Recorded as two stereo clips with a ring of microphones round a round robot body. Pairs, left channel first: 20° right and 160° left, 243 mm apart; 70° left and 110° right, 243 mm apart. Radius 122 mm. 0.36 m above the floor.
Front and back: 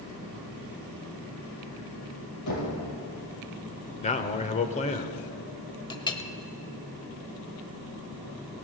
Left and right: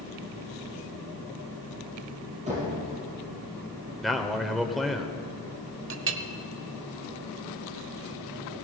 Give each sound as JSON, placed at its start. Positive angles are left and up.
{"t": 2.5, "sound": "knocking", "azimuth_deg": -50, "distance_m": 6.0}
{"t": 4.0, "sound": "a man speaking", "azimuth_deg": -25, "distance_m": 1.0}
{"t": 5.9, "sound": "a clink", "azimuth_deg": -90, "distance_m": 0.9}